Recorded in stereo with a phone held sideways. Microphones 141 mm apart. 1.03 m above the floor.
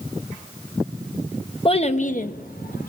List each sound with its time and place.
1.6 s a child speaking: 40° left (ahead or behind), 1.0 m; by 2.9 s 70° left (ahead or behind), 1.2 m